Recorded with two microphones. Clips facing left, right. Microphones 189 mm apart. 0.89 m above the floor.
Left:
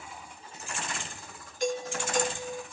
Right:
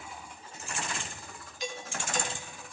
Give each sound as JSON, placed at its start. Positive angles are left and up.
{"t": 1.6, "sound": "a doorbell", "side_deg": 50, "distance_m": 4.0}